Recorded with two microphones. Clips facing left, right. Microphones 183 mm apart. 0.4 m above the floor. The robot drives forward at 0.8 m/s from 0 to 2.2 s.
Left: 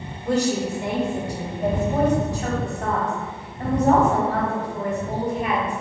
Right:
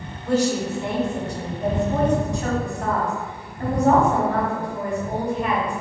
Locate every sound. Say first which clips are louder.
0.2 s a woman speaking: right 1 dB; 15° left (ahead or behind), 1.1 m; by 5.8 s 10° left (ahead or behind), 2 m